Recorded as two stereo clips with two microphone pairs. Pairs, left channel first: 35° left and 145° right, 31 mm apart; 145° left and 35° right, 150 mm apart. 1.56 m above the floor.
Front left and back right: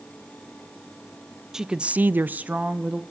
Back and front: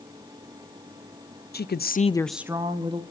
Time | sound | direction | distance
1.5 | a woman speaking | 140° left | 1.0 m